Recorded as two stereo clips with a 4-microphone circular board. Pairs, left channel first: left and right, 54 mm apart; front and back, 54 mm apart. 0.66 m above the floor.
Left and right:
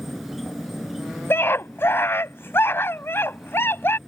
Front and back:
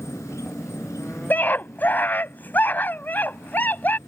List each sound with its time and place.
0.0 s an insect: straight ahead
1.3 s a scream: 50° left